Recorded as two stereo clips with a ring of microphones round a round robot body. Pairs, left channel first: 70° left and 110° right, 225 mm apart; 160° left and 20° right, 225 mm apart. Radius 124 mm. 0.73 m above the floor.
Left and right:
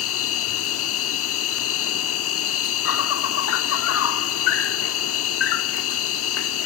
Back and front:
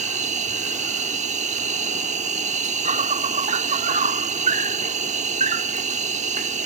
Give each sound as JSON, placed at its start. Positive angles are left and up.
{"t": 0.0, "sound": "an insect", "azimuth_deg": 40}